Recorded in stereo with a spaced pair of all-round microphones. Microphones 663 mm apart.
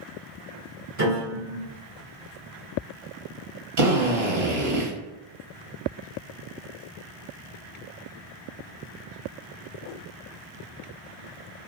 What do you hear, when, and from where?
1.0 s a piano: 55° right (ahead or behind), 1.8 m
3.8 s a drill: 55° right (ahead or behind), 0.9 m